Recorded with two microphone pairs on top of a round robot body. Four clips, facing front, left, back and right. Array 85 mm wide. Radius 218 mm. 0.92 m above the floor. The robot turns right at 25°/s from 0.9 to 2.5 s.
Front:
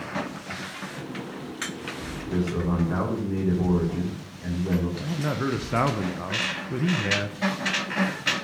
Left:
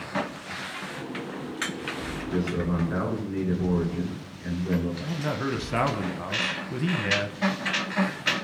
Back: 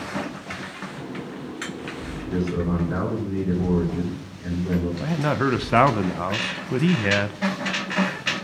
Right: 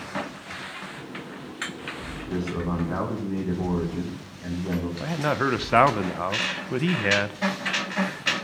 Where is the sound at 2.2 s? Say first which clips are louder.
Left 1 dB, back 2 dB; 75° right, 9 m; by 4.9 s 70° right, 9 m.